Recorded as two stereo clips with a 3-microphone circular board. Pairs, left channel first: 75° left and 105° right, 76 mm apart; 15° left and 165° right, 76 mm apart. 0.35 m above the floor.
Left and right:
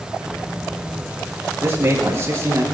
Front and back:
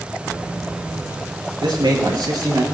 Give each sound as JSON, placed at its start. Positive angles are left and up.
{"t": 1.6, "sound": "a man speaking", "azimuth_deg": -160, "distance_m": 5.5}